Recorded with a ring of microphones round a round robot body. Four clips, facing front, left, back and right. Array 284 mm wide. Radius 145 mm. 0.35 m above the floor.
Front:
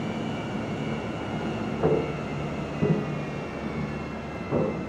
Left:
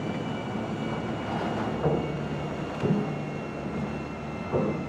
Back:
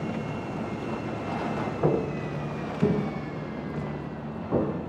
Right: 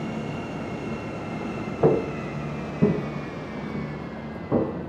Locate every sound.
1.8 s footsteps: 90° right, 2.5 m; by 4.7 s 85° right, 5.5 m